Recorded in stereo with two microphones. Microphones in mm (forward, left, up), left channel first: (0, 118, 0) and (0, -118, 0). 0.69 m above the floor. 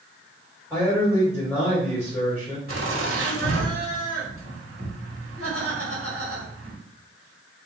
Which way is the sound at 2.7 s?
65° right (ahead or behind).